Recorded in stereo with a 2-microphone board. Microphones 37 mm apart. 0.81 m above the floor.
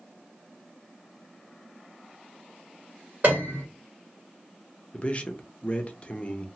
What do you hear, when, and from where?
3.2 s a piano: 45° right (ahead or behind), 1.4 m
4.9 s a man speaking: 35° left (ahead or behind), 0.6 m